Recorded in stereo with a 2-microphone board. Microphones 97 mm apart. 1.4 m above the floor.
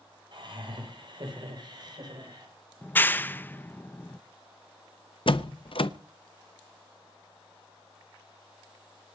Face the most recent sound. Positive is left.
turn(degrees=65)  # may be behind; listen again after turning